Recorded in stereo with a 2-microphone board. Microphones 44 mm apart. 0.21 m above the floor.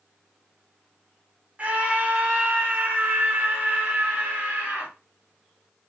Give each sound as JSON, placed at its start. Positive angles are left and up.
{"t": 1.6, "sound": "a scream", "side_deg": -35, "distance_m": 1.4}